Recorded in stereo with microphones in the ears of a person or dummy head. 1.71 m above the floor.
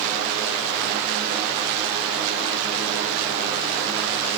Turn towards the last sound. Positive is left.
No sound to turn to.